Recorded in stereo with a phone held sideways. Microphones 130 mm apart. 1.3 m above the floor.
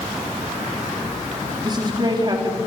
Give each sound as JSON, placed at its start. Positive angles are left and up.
{"t": 1.6, "sound": "a woman speaking", "side_deg": -35, "distance_m": 4.0}